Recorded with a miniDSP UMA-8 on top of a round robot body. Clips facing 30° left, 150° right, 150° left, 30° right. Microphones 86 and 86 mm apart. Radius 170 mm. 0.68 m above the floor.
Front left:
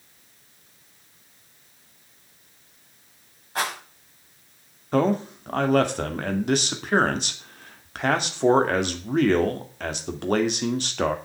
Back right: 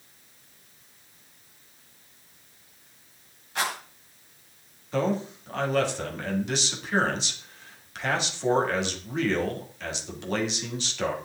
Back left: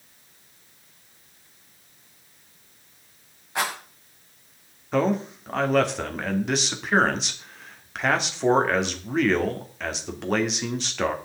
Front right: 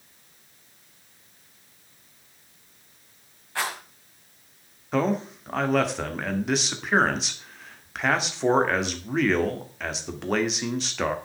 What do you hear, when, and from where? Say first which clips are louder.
3.5 s a rattle: front left 2 dB, back left 2 dB; 80° left, 6 m
4.9 s a man speaking: front left 5 dB, back left 1 dB; 60° left, 2.5 m